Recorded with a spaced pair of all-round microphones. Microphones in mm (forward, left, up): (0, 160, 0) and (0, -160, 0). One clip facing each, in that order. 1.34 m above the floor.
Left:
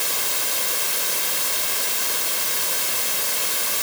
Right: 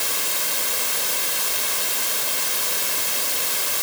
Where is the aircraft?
I don't hear an aircraft.